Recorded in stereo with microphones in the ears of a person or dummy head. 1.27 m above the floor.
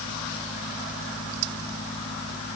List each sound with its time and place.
Only background noise.